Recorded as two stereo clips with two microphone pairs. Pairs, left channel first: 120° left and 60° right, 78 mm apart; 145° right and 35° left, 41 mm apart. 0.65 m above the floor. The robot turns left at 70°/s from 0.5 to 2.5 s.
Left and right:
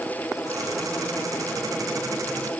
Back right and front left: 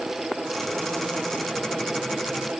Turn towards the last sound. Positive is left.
No sound to turn to.